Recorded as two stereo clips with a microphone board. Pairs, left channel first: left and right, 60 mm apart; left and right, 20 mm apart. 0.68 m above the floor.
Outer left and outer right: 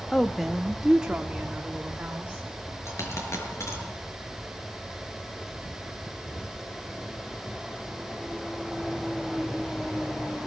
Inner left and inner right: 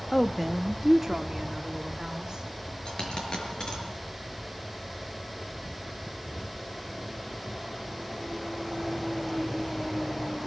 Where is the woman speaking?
5° left (ahead or behind), 1.0 m; by 2.4 s 25° right (ahead or behind), 2.5 m.